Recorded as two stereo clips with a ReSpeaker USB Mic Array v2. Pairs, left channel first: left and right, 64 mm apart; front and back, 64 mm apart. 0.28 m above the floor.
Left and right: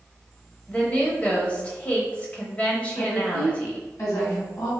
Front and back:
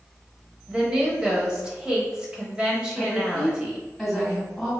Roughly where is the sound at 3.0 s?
Left.